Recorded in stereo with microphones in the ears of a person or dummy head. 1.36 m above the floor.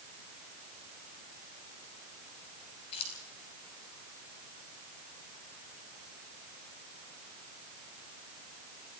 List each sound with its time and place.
2.9 s keys jangling: 30° left (ahead or behind), 5.5 m